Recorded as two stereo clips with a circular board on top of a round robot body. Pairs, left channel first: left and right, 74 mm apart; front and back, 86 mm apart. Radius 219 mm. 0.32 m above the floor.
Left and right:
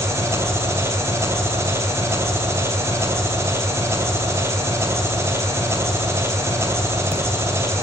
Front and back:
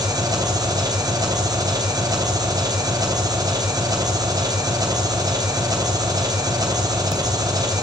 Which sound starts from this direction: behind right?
An engine running, at 0.0 s.